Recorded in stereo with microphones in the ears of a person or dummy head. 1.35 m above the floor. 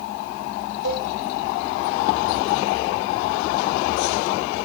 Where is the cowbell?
65° right (ahead or behind), 5 m.